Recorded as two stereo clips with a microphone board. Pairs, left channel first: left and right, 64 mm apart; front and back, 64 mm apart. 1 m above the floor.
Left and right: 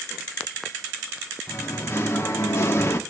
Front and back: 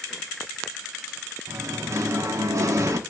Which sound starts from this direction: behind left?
Singing, at 1.5 s.